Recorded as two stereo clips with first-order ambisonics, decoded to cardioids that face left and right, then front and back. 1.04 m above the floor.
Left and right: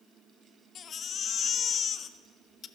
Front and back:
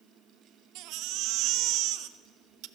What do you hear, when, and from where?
0.8 s a baby crying: 150° left, 0.5 m